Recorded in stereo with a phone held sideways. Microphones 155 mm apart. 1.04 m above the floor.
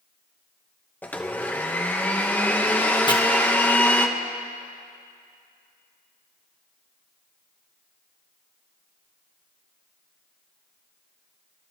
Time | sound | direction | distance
1.0 | a blender | 10° left (ahead or behind) | 0.9 m
3.1 | chopping | 30° left (ahead or behind) | 1.2 m